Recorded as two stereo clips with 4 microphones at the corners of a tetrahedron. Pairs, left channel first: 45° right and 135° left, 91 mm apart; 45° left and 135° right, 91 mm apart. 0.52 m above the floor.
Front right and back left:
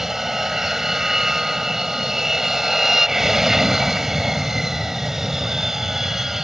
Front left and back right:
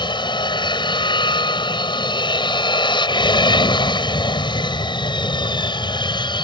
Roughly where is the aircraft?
Ahead left.